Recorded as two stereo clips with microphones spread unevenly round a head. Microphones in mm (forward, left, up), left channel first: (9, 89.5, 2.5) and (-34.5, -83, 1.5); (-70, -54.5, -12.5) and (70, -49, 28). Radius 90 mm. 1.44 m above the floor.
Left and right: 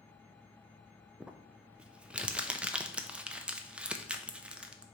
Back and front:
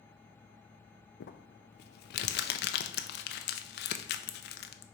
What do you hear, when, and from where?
1.2 s crumpling: 175° left, 0.5 m